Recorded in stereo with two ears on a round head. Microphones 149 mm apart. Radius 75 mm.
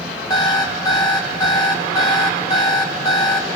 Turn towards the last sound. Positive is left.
turn(degrees=25)  # may be behind; listen again after turning